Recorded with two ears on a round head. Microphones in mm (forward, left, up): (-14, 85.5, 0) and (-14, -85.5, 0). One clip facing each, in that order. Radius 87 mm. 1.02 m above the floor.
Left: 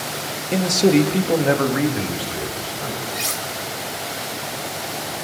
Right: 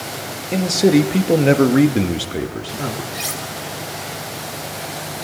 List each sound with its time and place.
0.5 s a man speaking: 5° left (ahead or behind), 1.9 m; by 3.0 s 70° right (ahead or behind), 3 m
3.1 s cutlery clinking: centre (ahead or behind), 2.5 m